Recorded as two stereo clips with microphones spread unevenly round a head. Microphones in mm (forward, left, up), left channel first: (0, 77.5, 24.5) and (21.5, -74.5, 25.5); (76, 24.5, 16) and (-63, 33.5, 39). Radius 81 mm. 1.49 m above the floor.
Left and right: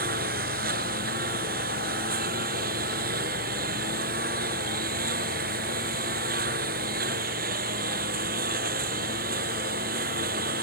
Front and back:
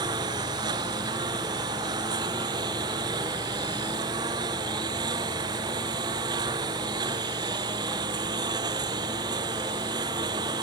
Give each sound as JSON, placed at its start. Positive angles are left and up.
{"t": 0.0, "sound": "a lawn mower", "azimuth_deg": -120}